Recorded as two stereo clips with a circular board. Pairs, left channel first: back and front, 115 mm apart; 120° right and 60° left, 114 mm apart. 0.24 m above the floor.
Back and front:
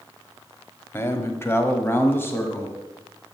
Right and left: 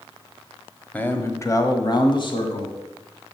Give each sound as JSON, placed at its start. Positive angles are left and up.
{"t": 0.9, "sound": "a man speaking", "azimuth_deg": -170, "distance_m": 0.9}